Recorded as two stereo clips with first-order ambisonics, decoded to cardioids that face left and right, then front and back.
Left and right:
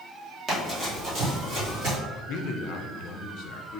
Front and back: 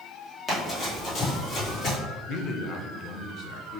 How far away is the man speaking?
About 0.7 m.